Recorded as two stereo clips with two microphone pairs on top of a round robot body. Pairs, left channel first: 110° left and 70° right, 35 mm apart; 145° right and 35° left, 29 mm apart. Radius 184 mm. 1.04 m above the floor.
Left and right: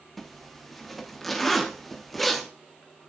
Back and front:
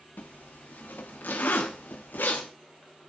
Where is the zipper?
165° right, 0.9 m.